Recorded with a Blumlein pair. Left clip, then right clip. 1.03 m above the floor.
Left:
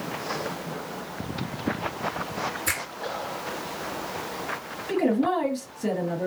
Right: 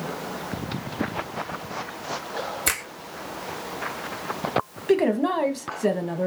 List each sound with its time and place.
2.7 s a finger snap: 60° right, 1.4 m
4.9 s a woman speaking: 25° right, 0.9 m